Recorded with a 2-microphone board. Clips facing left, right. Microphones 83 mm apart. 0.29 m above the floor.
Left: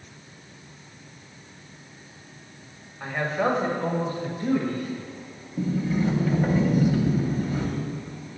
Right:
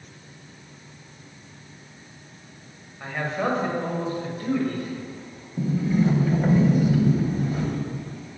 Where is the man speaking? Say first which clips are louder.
Left 2 dB; 5° left (ahead or behind), 1.3 m; by 5.0 s centre (ahead or behind), 1.4 m.